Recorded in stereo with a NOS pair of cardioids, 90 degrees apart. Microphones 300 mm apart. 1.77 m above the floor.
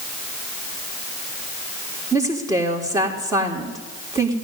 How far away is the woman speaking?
About 4 m.